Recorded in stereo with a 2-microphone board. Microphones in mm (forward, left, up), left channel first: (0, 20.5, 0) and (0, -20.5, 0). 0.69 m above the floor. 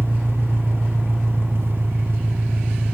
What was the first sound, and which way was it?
An engine running, 60° right (ahead or behind).